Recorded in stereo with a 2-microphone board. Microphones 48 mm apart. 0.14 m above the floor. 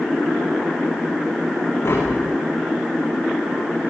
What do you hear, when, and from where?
1.8 s tapping: 60° left (ahead or behind), 8 m